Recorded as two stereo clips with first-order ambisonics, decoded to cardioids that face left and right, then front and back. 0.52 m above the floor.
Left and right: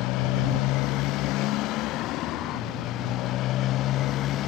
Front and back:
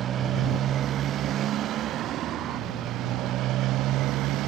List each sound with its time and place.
0.0 s a motorcycle: 120° left; by 4.5 s 140° left